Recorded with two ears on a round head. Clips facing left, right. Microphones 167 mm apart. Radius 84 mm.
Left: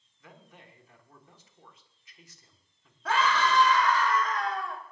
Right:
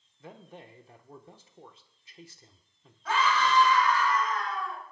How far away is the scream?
About 3.5 m.